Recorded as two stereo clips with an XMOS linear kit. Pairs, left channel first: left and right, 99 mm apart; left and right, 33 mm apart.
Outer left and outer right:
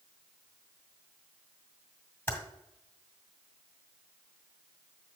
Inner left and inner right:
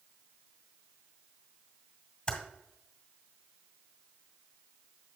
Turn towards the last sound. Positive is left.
turn(degrees=15)  # may be behind; listen again after turning